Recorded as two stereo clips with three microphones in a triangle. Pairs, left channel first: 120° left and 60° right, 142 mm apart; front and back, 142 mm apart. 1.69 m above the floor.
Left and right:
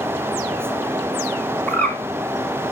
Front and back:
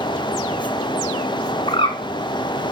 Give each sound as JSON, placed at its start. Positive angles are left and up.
{"t": 1.7, "sound": "a bird", "azimuth_deg": 40, "distance_m": 3.0}